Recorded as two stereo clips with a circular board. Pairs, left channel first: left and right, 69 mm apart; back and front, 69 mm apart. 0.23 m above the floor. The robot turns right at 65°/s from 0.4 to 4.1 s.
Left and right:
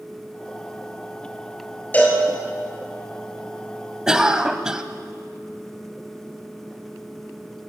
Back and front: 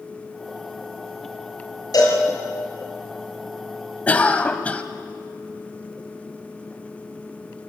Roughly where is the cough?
Behind right.